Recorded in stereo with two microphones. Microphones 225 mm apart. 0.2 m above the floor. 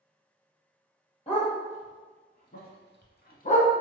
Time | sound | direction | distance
1.3 | a dog barking | 30° left (ahead or behind) | 1.5 m